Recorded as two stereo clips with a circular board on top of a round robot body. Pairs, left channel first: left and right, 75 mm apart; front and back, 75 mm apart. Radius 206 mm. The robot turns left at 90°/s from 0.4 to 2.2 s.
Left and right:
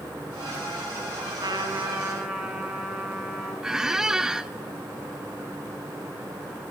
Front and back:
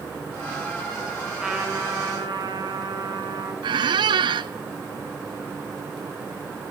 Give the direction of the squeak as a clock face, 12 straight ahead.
6 o'clock.